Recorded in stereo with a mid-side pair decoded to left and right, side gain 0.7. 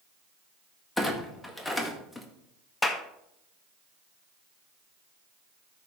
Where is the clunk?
10° left, 1.6 m.